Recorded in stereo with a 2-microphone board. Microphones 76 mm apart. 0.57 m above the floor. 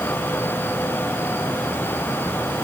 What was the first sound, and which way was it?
Only background noise.